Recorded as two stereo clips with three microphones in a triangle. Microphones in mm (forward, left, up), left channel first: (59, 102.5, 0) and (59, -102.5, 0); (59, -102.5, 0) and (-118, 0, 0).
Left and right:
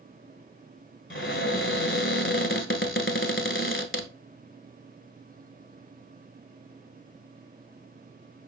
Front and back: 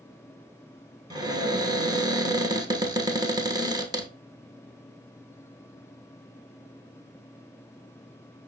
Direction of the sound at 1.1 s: 85° left.